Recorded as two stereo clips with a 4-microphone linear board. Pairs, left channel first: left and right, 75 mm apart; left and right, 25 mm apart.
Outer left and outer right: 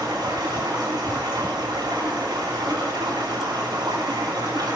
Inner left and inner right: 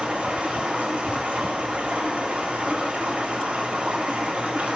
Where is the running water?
70° right (ahead or behind), 8.5 m.